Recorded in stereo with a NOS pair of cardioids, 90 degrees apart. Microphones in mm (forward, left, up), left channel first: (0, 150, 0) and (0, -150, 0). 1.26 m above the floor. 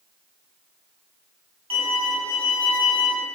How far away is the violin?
About 1.1 m.